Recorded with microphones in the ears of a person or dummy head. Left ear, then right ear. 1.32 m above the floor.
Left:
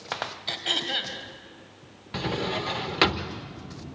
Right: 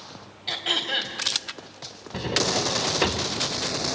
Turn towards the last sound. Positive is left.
turn(degrees=20)  # may be behind; listen again after turning